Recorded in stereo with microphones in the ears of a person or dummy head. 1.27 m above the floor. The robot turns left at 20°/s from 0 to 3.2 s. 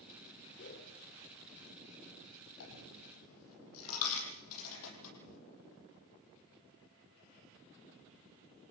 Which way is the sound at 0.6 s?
55° left (ahead or behind).